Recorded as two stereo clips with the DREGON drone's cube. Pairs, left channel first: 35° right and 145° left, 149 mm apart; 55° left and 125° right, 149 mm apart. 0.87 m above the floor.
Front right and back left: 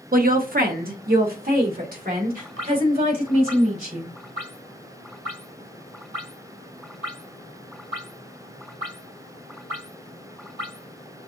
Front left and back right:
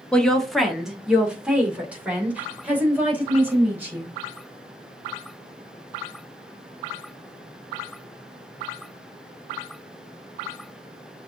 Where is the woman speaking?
140° left, 0.9 m; by 4.2 s 160° left, 4 m.